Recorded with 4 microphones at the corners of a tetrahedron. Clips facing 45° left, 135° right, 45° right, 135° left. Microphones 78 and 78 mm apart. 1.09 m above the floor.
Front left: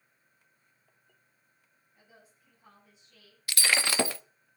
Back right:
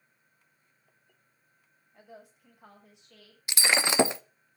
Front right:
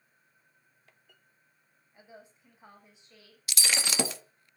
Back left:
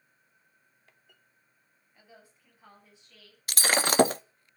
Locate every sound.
1.9 s a woman speaking: 115° right, 6.5 m
3.5 s breaking glass: 160° left, 0.6 m